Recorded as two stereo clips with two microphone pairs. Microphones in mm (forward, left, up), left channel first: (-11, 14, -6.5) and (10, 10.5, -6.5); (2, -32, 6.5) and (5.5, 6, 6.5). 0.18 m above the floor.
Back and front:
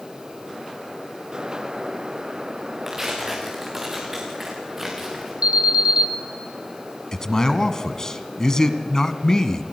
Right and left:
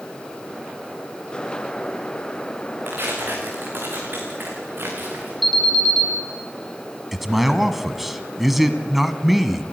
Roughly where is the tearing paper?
Ahead left.